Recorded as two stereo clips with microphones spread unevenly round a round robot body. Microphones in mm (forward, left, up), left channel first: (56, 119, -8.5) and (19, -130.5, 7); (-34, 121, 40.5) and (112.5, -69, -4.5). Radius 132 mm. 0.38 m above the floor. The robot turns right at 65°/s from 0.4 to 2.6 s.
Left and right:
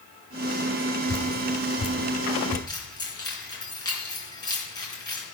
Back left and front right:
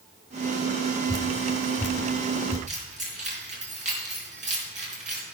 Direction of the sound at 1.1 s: Straight ahead.